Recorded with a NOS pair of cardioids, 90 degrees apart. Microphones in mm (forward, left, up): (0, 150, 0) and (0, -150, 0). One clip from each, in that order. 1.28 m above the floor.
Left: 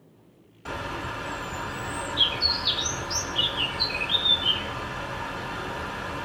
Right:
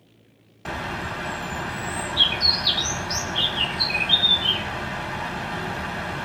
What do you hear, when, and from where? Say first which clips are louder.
0.7 s a bird: right 3 dB; 40° right, 1.2 m